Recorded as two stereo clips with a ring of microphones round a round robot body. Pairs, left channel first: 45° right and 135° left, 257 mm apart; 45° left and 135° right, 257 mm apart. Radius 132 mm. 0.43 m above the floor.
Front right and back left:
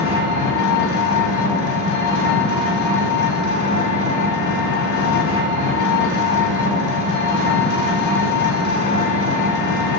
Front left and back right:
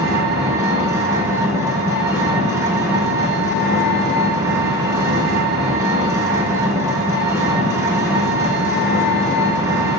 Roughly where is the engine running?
Ahead right.